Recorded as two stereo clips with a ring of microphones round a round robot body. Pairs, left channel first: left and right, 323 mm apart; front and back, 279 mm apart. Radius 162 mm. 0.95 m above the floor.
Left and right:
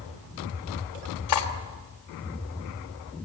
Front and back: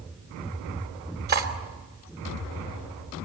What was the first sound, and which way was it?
Cutlery clinking, 125° left.